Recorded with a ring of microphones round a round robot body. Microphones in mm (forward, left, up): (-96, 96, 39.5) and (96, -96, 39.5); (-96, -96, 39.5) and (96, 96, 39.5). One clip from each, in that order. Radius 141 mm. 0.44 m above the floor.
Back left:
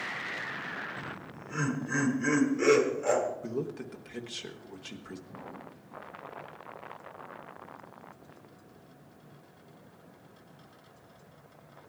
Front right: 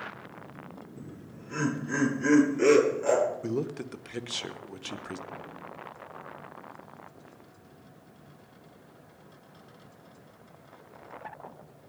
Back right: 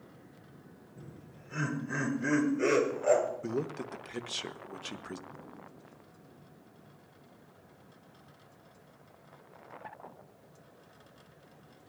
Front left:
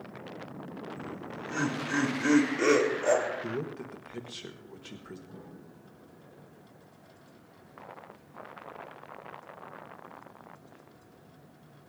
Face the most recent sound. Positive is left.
turn(degrees=45)